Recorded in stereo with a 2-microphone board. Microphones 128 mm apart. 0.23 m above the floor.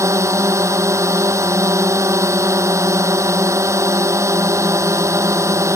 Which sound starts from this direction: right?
A drone, at 0.0 s.